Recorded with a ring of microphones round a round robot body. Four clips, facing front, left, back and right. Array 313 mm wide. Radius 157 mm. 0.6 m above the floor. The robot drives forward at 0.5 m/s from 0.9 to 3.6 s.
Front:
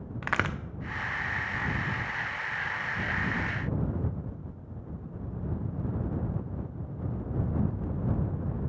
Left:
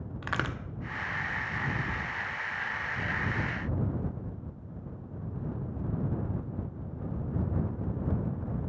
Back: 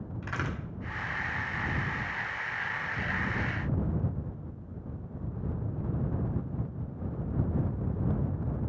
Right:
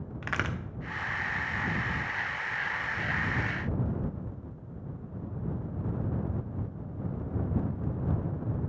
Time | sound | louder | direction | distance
0.2 | a crack | even, front 6 dB | 15° left | 0.5 m